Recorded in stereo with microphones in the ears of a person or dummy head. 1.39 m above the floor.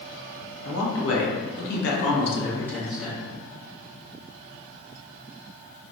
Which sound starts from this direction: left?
A man speaking, at 0.7 s.